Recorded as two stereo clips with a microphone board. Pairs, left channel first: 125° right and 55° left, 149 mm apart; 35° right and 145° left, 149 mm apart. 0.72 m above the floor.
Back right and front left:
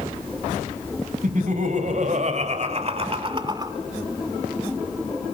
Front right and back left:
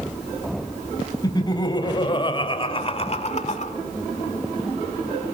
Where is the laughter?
30° left, 4 m; by 3.7 s 10° right, 1.6 m.